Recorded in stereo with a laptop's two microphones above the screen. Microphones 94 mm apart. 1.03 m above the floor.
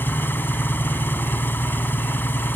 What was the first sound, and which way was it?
An engine running, 25° left (ahead or behind).